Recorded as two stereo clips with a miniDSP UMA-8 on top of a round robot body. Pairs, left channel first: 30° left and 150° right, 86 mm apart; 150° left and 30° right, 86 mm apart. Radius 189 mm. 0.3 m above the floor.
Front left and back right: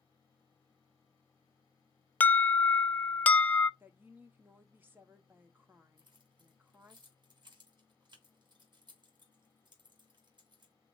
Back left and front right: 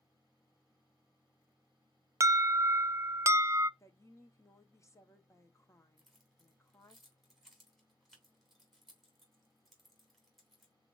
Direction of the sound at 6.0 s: 120° right.